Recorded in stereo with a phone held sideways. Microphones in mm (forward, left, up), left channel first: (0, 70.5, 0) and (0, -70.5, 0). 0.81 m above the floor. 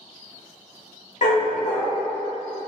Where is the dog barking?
65° left (ahead or behind), 0.9 m.